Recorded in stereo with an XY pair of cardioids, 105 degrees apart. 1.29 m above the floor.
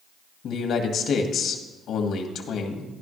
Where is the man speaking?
65° left, 1.9 m.